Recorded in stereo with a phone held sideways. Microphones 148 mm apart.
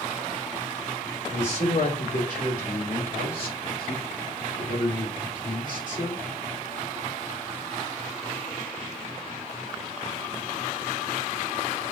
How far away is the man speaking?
About 3 m.